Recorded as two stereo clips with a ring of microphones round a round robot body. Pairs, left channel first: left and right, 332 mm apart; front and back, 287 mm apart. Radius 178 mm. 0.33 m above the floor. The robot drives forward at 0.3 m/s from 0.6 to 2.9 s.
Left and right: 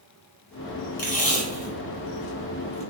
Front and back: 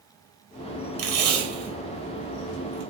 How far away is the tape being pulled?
About 1.3 m.